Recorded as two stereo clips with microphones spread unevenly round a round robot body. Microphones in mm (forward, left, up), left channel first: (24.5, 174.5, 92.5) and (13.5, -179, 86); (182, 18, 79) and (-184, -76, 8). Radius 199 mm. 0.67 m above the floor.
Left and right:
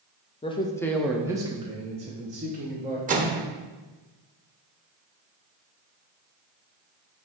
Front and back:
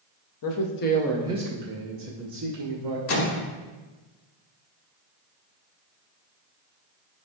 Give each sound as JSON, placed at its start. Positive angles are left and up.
{"t": 0.4, "sound": "a man speaking", "azimuth_deg": 20, "distance_m": 0.6}
{"t": 3.1, "sound": "a microwave", "azimuth_deg": -35, "distance_m": 0.7}